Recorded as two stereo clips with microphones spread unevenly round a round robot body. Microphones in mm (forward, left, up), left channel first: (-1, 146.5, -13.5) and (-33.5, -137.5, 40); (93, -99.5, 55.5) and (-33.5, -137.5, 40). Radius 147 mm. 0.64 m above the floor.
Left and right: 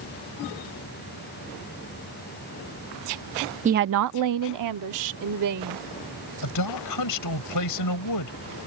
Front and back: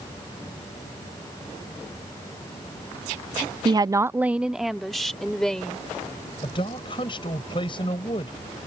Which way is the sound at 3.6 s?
165° right.